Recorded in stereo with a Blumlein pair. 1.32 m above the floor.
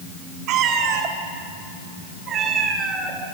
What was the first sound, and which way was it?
A cat meowing, 35° right.